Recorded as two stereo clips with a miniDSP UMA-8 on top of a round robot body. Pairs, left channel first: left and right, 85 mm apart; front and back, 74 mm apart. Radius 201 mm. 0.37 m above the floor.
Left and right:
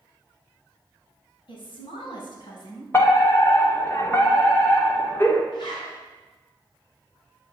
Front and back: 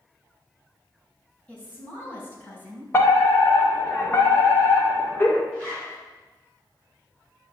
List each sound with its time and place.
1.5 s a woman speaking: 70° left, 5 m; by 2.8 s 60° left, 5 m
2.9 s a fire alarm: 40° left, 2.5 m
5.5 s a zipper: 65° left, 7 m